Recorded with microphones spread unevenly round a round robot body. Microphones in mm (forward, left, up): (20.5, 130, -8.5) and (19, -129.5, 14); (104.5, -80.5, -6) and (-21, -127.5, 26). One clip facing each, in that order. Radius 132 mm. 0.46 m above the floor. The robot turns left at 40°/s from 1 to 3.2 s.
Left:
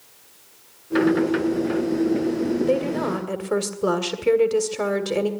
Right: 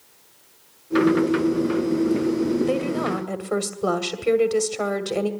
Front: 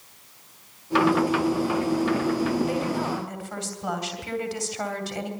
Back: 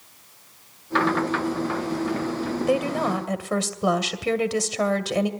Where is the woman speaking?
165° right, 1.9 m; by 5.3 s 175° left, 1.9 m.